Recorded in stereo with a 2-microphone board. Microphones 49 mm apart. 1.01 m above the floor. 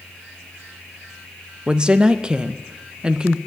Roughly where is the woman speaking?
Centre.